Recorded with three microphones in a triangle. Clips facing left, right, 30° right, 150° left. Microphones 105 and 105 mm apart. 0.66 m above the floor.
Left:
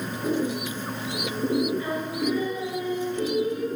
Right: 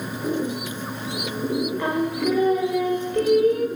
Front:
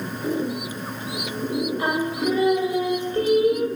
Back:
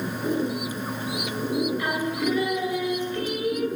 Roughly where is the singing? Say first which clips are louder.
Right 5 dB, front 2 dB; right.